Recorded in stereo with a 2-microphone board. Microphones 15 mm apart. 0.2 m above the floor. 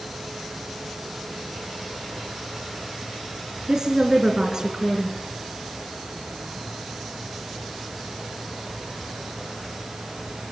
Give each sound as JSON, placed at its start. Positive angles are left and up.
{"t": 3.7, "sound": "a woman speaking", "side_deg": -45, "distance_m": 3.0}